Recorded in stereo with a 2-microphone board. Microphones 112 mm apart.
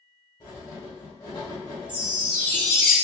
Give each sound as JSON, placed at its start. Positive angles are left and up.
{"t": 0.4, "sound": "writing", "side_deg": 35, "distance_m": 1.6}
{"t": 1.9, "sound": "a chime", "side_deg": -10, "distance_m": 1.2}